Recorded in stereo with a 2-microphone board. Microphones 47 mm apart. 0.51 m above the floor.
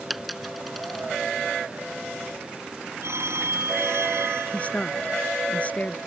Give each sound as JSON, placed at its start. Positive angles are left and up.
{"t": 0.1, "sound": "a dropped coin", "side_deg": 0}
{"t": 3.0, "sound": "a phone ringing", "side_deg": -75}
{"t": 4.5, "sound": "a woman speaking", "side_deg": 30}